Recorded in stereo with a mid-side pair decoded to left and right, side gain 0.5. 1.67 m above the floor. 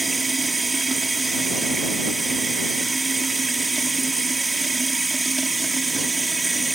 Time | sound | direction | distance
0.0 | running water | 15° right | ?